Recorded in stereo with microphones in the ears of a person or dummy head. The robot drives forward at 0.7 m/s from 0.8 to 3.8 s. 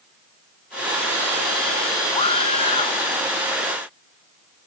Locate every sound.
2.1 s a scream: 35° left (ahead or behind)